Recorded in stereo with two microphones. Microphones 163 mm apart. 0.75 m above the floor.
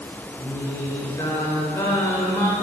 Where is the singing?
20° left (ahead or behind), 0.6 m.